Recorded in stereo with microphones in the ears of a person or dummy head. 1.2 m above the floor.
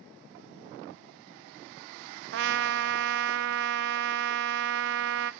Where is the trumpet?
60° right (ahead or behind), 0.8 m.